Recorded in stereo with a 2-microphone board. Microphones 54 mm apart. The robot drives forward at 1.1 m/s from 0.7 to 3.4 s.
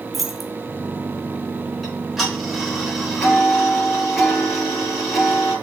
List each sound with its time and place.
0.1 s keys jangling: centre (ahead or behind), 1.2 m
1.8 s ticking: centre (ahead or behind), 3.5 m